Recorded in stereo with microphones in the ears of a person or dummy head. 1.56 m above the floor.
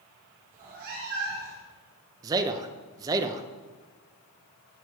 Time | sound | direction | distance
0.5 | a cat meowing | 40° right (ahead or behind) | 1.0 m
2.2 | a man speaking | 20° right (ahead or behind) | 0.6 m